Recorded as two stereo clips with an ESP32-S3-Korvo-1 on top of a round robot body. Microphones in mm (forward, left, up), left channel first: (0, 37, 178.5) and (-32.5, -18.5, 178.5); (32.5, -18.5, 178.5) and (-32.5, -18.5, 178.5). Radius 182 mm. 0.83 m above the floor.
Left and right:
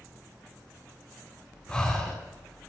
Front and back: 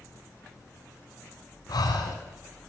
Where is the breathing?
20° right, 2.5 m.